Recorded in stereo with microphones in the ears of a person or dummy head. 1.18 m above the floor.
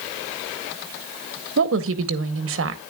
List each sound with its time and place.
1.6 s a woman speaking: 65° right (ahead or behind), 1.0 m